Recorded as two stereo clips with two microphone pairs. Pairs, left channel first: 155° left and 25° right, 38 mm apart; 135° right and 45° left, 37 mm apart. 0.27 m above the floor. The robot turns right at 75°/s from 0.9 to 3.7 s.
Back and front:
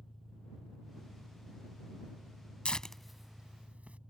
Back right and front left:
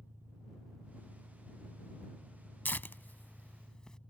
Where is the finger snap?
I don't hear a finger snap.